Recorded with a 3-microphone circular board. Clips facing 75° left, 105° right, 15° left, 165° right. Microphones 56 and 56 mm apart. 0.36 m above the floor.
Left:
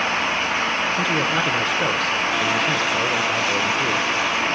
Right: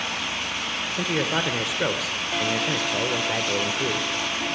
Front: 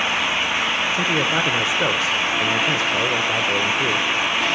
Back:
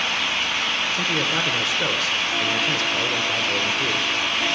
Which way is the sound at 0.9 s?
30° right.